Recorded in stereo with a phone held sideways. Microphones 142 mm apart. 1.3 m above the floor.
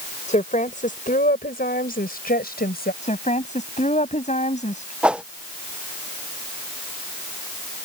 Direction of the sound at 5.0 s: 5° right (ahead or behind).